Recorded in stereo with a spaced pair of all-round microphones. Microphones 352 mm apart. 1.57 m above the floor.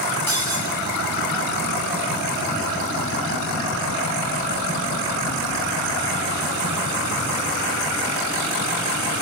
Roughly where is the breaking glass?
Right.